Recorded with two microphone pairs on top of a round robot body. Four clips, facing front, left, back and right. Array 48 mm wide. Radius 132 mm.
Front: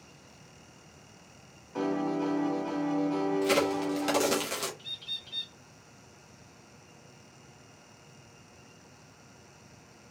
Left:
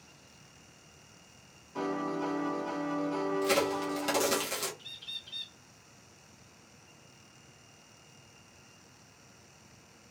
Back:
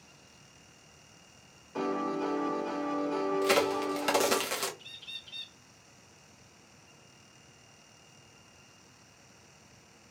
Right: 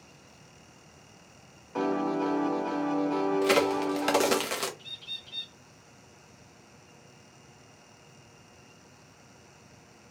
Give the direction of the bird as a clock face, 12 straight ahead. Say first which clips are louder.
Right 2 dB, front 5 dB; 12 o'clock.